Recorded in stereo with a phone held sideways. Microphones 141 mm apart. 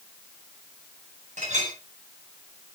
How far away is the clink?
About 7.5 m.